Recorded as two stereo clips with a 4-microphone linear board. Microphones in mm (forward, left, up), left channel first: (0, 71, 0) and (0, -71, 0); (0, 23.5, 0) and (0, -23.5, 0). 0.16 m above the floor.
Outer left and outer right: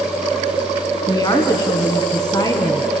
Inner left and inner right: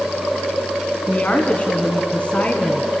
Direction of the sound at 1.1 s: 30° left (ahead or behind).